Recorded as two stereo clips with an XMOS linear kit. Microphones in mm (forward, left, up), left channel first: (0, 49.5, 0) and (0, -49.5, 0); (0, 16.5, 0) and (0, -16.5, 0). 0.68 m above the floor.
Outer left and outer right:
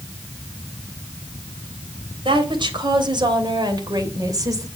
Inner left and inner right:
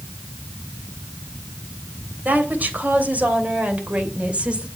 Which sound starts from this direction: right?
A woman speaking, at 2.2 s.